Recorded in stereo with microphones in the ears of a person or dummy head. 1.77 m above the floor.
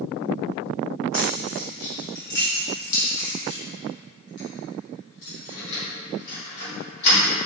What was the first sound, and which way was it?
Keys jangling, 45° left (ahead or behind).